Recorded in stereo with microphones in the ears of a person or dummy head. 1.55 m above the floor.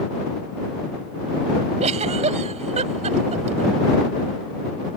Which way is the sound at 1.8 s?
40° right (ahead or behind).